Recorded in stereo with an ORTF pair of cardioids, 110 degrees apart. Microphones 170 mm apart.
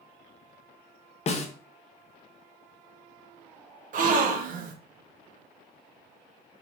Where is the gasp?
50° right, 1.1 m.